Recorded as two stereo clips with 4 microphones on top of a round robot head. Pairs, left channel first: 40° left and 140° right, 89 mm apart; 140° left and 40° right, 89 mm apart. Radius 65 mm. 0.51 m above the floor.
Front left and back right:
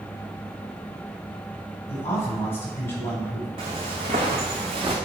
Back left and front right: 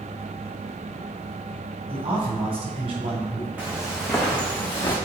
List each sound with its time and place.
1.9 s a man speaking: 25° right, 4.5 m
3.6 s footsteps: 115° right, 2.5 m; by 5.0 s 160° right, 3 m